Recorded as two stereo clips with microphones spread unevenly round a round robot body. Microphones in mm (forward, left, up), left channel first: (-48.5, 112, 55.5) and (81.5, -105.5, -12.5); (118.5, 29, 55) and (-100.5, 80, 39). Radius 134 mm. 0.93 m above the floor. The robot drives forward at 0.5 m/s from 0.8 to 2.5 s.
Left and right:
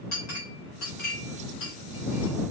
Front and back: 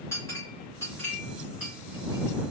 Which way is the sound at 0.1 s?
65° left.